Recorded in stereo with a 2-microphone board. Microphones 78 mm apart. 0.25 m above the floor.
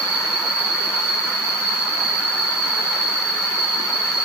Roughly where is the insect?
Centre.